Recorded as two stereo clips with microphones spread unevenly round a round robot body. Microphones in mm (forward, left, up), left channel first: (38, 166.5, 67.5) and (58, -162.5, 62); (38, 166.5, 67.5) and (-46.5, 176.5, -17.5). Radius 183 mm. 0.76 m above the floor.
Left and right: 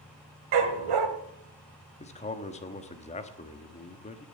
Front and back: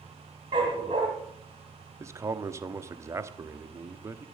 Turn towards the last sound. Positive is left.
turn(degrees=165)